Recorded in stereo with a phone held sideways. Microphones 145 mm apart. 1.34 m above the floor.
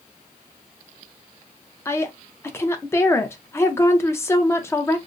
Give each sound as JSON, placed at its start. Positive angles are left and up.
{"t": 1.9, "sound": "a woman speaking", "side_deg": 20, "distance_m": 0.6}